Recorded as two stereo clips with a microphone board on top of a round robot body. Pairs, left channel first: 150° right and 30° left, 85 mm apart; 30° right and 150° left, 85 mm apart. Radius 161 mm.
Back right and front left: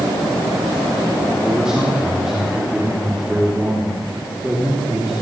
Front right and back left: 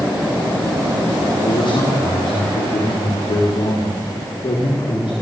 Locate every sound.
1.4 s a man speaking: 55° right, 4 m